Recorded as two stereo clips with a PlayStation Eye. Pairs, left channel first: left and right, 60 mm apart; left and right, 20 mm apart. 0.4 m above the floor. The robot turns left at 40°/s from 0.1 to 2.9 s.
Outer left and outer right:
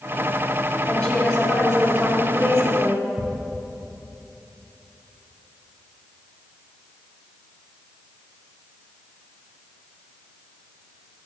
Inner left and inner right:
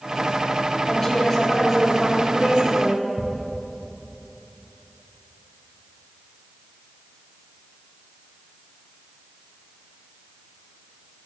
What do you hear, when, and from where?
0.8 s a woman speaking: 15° left, 3.5 m; by 3.1 s 65° right, 3.5 m
3.2 s ticking: 70° right (ahead or behind), 4 m